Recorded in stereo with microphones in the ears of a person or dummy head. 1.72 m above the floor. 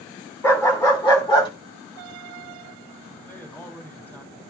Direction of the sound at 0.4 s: 15° left (ahead or behind).